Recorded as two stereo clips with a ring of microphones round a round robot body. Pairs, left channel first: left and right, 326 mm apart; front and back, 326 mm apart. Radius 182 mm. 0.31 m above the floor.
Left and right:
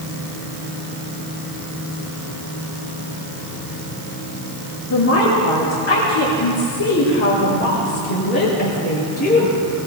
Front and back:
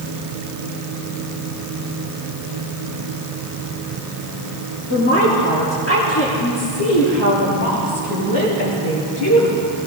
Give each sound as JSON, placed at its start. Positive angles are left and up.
{"t": 4.9, "sound": "a woman speaking", "azimuth_deg": 55, "distance_m": 5.0}